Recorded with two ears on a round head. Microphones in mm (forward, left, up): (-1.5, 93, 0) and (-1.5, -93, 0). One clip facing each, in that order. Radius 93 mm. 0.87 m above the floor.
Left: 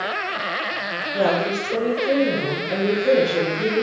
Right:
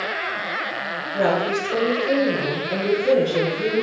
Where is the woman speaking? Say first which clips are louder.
Even; 15° left (ahead or behind), 3 m.